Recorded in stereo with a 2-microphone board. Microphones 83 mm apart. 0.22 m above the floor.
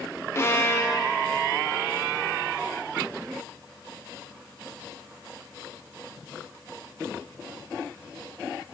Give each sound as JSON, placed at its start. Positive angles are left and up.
{"t": 0.3, "sound": "a violin", "side_deg": 35, "distance_m": 0.5}